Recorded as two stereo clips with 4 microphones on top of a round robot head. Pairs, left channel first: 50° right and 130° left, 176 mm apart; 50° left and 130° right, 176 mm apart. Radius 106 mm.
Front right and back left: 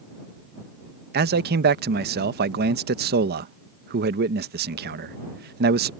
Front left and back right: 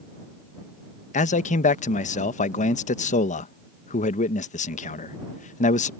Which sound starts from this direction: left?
A man speaking, at 1.1 s.